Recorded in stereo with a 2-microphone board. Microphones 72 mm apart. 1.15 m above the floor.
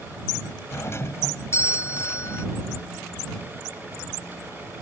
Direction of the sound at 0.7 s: 35° left (ahead or behind).